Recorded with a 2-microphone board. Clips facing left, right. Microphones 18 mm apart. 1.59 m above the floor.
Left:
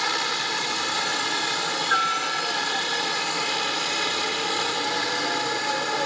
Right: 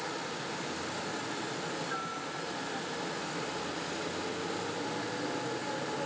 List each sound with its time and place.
0.0 s a helicopter: 65° left (ahead or behind)